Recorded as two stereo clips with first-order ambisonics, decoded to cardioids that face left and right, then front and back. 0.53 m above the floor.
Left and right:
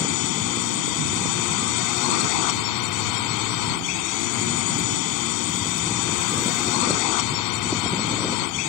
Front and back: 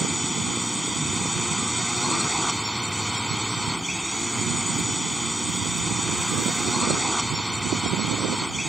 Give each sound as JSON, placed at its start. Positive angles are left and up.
{"t": 0.0, "sound": "a drone", "azimuth_deg": 90}